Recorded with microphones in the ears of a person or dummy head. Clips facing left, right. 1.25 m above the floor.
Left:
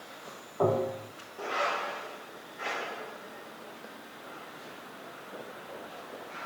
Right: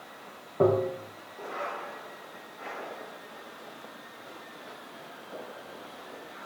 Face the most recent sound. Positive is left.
turn(degrees=-35)  # may be behind; listen again after turning